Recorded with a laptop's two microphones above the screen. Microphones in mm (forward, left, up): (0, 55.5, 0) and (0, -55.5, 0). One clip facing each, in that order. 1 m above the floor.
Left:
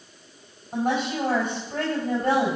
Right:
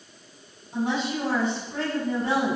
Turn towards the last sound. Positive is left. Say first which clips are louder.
# left 2 dB
turn(degrees=55)  # may be behind; listen again after turning